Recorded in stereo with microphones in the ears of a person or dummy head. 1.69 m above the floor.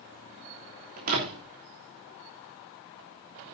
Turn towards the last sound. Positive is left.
turn(degrees=-40)  # may be behind; listen again after turning